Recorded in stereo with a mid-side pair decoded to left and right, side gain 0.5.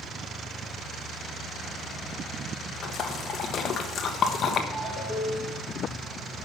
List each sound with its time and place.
2.8 s a splash: 50° left, 1.1 m
4.7 s a ringtone: 20° left, 3.5 m